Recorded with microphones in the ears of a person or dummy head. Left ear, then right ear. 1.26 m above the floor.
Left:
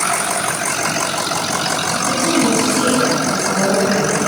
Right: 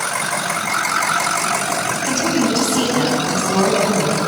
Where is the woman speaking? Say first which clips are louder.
Left 2 dB; 55° right (ahead or behind), 8 m; by 4.2 s 65° right (ahead or behind), 9 m.